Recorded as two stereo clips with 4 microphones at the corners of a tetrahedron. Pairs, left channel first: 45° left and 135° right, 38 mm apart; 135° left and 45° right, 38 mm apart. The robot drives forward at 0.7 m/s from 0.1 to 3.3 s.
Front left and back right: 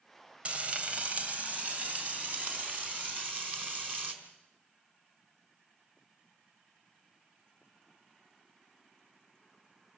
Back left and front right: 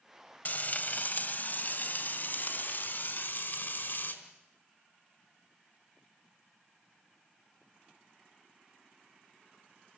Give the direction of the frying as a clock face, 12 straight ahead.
6 o'clock.